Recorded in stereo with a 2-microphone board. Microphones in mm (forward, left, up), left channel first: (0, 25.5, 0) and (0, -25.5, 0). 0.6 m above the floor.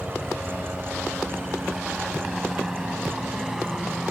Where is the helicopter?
10° right (ahead or behind); by 4.1 s 5° right (ahead or behind).